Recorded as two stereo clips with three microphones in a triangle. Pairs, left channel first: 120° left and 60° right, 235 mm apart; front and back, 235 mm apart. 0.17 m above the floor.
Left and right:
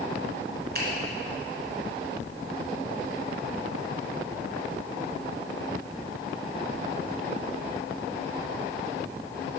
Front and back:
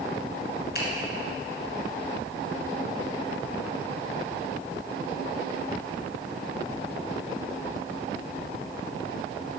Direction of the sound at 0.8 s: 30° right.